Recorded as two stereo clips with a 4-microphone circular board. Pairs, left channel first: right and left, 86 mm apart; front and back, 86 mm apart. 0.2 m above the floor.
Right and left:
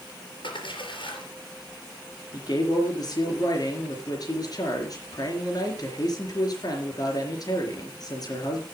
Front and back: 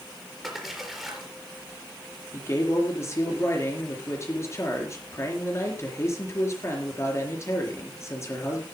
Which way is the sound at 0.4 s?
90° right.